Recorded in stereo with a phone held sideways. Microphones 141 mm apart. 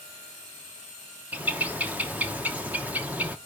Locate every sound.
1.3 s a bird: 10° right (ahead or behind), 0.9 m